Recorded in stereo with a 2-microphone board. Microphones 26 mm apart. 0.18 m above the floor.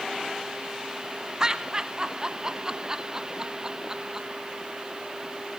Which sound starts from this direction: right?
Laughter, at 1.4 s.